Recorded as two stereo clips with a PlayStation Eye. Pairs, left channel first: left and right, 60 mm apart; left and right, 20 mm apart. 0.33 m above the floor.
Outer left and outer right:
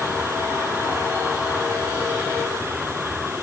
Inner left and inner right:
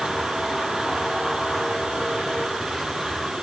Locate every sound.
Only background noise.